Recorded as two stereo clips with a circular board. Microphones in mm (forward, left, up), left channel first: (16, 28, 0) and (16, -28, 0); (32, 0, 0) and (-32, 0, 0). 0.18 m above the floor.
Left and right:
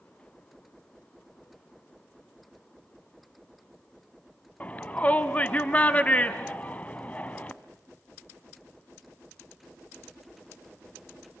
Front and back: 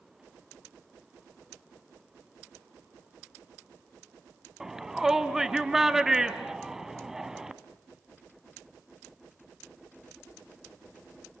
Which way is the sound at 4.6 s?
110° left.